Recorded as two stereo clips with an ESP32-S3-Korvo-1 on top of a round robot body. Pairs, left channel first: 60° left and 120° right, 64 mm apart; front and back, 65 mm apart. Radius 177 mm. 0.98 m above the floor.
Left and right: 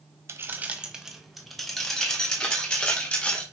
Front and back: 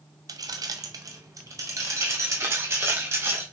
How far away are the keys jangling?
About 0.7 m.